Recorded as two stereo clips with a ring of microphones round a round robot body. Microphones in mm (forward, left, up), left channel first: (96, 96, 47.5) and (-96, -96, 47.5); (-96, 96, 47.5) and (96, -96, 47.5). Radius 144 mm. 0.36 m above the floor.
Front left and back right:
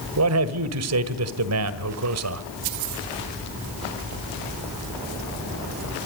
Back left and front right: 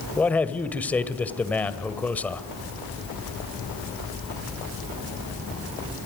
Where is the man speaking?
140° right, 1.5 m.